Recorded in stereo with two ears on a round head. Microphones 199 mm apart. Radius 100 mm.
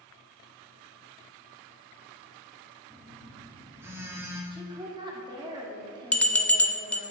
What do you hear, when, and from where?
2.9 s a phone buzzing: 10° right (ahead or behind), 1.2 m
4.5 s a woman speaking: 20° right (ahead or behind), 1.5 m
6.1 s a bell: 5° left (ahead or behind), 0.5 m